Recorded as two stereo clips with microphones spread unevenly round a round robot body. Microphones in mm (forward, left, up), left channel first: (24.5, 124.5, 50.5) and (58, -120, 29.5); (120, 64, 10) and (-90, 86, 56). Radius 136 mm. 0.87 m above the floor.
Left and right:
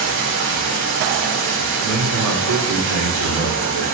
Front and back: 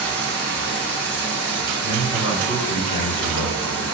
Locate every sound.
0.0 s running water: 105° right, 0.8 m
1.8 s a man speaking: 85° right, 2.5 m